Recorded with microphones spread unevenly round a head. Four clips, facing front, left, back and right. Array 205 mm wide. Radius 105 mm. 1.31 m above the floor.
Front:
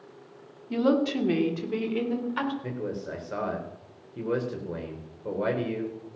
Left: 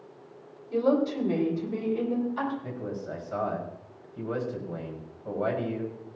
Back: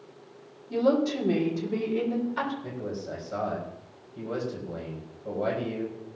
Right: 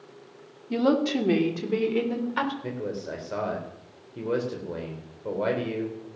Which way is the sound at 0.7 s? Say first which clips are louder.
Right 1 dB, even; 60° right.